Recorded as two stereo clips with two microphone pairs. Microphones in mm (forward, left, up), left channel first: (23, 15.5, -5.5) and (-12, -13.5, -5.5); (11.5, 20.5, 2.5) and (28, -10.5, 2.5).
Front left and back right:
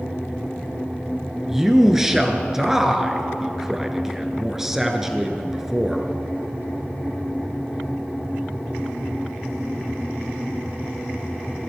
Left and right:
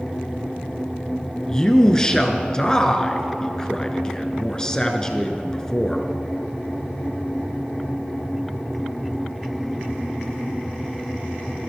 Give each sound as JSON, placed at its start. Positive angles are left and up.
{"t": 1.5, "sound": "a man speaking", "azimuth_deg": 155, "distance_m": 1.1}